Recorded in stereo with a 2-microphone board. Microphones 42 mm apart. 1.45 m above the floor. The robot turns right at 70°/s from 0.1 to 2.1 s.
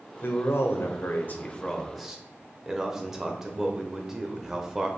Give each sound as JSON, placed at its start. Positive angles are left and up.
{"t": 0.2, "sound": "a man speaking", "azimuth_deg": 60, "distance_m": 0.7}